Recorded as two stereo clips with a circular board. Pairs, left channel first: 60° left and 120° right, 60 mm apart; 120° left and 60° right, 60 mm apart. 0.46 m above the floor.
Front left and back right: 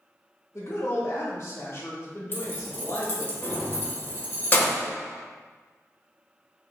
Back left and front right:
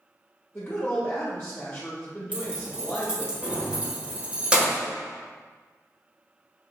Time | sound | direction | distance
0.5 | a woman speaking | 60° left | 1.1 m
2.3 | keys jangling | 5° left | 0.8 m